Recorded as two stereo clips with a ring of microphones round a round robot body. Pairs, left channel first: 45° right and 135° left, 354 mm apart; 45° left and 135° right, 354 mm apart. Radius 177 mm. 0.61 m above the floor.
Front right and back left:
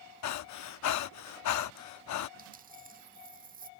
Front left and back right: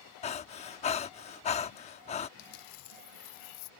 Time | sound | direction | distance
0.2 | breathing | 20° right | ?
2.4 | a dropped coin | 65° left | ?